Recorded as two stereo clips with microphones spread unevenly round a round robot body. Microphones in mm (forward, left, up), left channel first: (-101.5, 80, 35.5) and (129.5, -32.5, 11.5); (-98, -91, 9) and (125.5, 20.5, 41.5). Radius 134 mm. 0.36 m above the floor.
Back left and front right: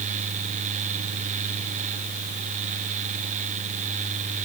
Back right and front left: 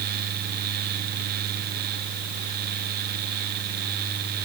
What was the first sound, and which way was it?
Only background noise.